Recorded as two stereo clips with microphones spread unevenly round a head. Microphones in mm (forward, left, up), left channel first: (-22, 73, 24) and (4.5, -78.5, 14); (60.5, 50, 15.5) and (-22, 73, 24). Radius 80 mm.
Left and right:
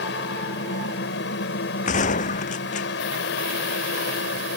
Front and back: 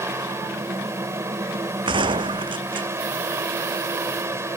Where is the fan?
110° left.